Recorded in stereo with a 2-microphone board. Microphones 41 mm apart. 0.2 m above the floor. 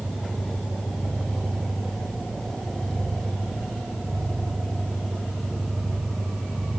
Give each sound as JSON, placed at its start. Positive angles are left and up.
{"t": 0.0, "sound": "an engine running", "side_deg": 10, "distance_m": 7.0}